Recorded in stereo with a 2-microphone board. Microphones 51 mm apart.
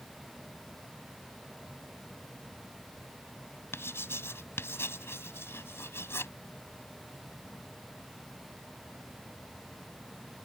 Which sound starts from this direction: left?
Writing, at 3.7 s.